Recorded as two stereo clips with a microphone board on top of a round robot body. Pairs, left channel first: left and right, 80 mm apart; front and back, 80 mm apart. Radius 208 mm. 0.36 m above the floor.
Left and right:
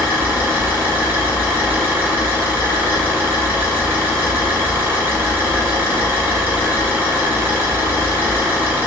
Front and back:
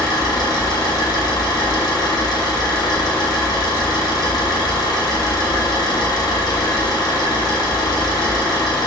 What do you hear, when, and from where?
0.0 s an engine running: 30° right, 1.4 m